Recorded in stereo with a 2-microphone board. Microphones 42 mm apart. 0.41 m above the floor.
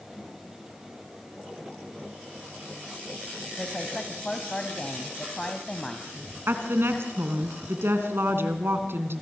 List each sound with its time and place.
3.6 s a woman speaking: 20° left (ahead or behind), 2 m
6.5 s a woman speaking: 65° right (ahead or behind), 3.5 m